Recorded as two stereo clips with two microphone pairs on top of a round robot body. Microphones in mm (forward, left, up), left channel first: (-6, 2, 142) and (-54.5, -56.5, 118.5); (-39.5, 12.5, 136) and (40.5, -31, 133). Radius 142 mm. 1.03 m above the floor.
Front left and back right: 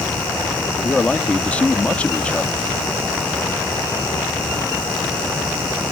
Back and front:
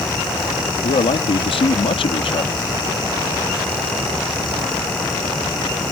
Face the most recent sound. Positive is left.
turn(degrees=125)